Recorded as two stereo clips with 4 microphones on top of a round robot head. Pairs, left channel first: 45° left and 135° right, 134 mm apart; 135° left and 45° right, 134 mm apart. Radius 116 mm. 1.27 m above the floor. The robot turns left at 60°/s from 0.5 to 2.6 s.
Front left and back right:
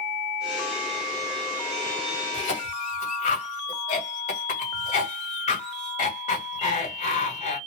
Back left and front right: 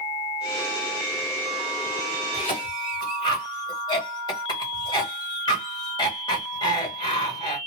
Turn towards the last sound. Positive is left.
turn(degrees=80)